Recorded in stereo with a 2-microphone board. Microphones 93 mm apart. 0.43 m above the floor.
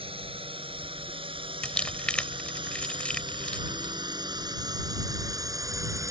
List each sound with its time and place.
0.0 s a drone: 75° right (ahead or behind); by 6.1 s 35° right (ahead or behind)
1.6 s crumpling: 10° left (ahead or behind)